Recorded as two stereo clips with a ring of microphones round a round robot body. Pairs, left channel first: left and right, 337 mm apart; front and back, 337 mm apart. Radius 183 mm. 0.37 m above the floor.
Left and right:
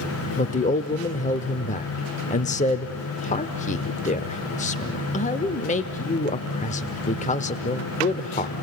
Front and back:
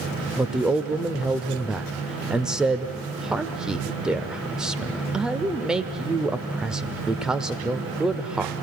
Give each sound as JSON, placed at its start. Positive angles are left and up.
{"t": 0.4, "sound": "a man speaking", "azimuth_deg": 95, "distance_m": 0.9}